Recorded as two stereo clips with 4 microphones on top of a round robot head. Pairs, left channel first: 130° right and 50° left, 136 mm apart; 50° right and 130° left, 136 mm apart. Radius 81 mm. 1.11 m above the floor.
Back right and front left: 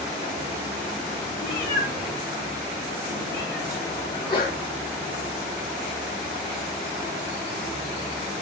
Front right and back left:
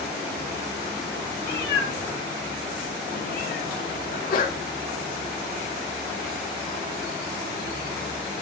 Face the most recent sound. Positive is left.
turn(degrees=-70)